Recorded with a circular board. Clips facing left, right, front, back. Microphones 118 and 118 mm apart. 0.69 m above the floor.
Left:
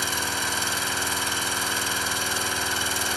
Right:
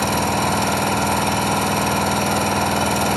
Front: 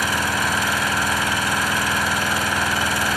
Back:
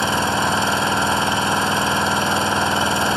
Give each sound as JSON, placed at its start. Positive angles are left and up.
{"t": 0.0, "sound": "an engine running", "azimuth_deg": -120, "distance_m": 1.4}